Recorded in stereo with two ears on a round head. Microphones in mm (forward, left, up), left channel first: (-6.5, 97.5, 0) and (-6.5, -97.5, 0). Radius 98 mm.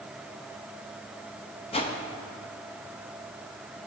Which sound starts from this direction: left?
A whoosh, at 1.7 s.